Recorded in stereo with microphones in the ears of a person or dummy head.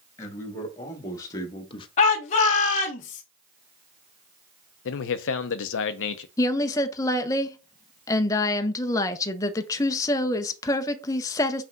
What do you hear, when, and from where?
0.2 s a man speaking: 15° left (ahead or behind), 1.9 m; by 1.9 s 25° left (ahead or behind), 0.7 m
2.0 s a shout: 35° left (ahead or behind), 0.7 m
4.8 s a man speaking: 65° left (ahead or behind), 0.5 m
6.4 s a woman speaking: 15° left (ahead or behind), 0.6 m